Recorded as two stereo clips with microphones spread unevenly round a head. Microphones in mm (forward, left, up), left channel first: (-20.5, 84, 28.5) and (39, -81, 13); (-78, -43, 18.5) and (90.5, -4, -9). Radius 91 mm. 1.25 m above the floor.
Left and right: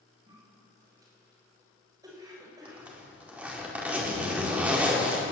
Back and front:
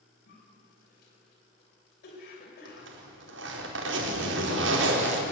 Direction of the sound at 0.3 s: 140° right.